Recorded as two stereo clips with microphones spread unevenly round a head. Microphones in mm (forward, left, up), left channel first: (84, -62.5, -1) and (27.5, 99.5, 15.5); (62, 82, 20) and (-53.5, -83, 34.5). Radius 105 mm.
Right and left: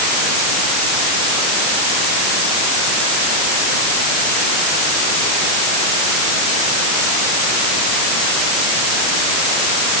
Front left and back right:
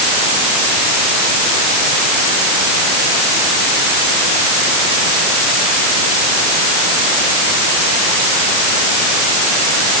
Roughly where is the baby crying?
I don't hear a baby crying.